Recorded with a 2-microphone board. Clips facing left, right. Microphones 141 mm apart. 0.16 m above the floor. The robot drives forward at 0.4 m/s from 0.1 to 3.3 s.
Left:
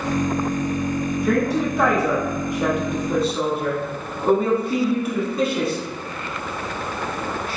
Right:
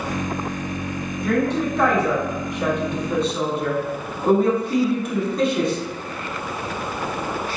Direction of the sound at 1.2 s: 5° left (ahead or behind).